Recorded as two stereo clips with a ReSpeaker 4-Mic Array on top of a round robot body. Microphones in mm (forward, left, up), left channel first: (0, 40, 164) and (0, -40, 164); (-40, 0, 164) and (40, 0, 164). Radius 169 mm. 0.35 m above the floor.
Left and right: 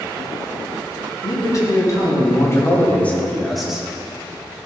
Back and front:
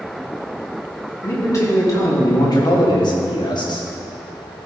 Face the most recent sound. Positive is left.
turn(degrees=-170)